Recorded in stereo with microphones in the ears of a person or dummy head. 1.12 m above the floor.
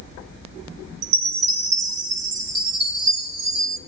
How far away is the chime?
About 0.8 m.